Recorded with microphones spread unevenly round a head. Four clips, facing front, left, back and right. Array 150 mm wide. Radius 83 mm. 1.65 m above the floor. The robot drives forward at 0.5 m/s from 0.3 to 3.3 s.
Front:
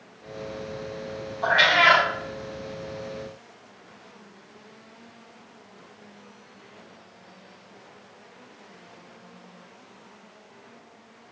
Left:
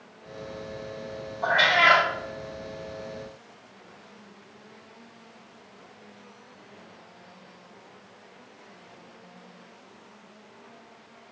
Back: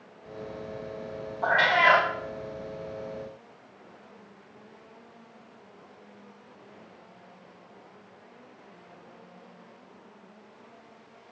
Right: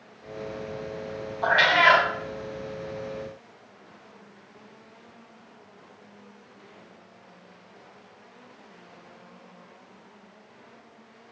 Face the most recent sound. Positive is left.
turn(degrees=-175)